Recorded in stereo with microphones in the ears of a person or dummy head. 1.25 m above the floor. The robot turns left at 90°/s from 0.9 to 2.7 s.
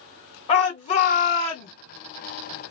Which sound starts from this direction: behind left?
A shout, at 0.5 s.